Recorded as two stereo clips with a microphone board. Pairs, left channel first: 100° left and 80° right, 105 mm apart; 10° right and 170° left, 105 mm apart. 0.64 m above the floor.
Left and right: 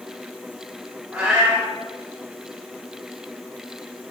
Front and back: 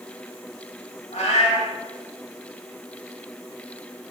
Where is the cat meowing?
Straight ahead, 2 m.